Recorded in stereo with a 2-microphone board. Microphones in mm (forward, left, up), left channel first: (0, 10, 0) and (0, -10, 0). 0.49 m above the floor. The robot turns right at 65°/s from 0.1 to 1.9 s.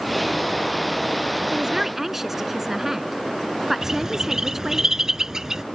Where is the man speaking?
40° right (ahead or behind); by 4.8 s 15° right (ahead or behind).